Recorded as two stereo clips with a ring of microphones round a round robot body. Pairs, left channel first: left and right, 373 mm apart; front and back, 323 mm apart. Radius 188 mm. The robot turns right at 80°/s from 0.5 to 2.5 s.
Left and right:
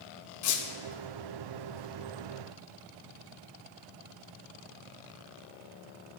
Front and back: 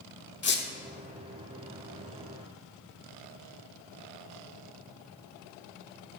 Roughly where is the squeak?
Ahead left.